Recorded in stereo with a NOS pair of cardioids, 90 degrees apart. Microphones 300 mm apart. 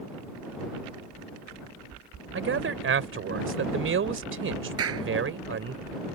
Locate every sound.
2.3 s a man speaking: 45° right
4.8 s a clap: 50° right